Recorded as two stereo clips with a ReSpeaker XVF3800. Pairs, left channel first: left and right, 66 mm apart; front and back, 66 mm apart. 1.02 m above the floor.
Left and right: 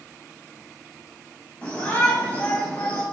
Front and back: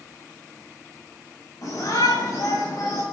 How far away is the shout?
About 6.5 m.